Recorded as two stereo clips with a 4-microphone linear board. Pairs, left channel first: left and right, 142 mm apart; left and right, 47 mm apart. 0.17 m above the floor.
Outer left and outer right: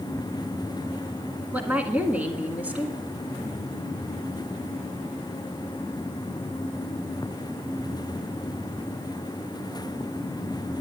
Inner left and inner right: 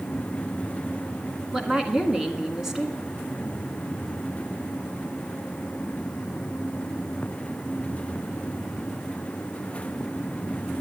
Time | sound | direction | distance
1.5 | a woman speaking | 10° right (ahead or behind) | 1.6 m